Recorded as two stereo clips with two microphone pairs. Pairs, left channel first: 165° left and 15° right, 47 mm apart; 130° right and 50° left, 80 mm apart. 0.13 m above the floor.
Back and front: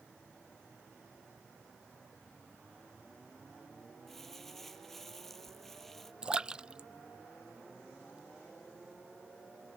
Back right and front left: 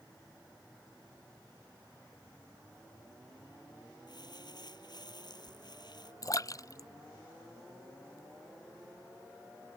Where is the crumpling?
110° right.